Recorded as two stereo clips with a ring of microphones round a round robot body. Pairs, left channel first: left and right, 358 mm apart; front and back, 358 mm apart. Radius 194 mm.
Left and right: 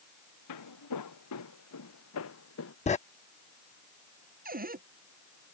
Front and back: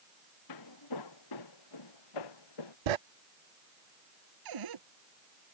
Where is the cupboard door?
155° right.